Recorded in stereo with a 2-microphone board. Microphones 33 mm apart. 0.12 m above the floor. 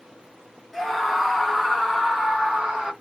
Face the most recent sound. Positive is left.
turn(degrees=-15)  # may be behind; listen again after turning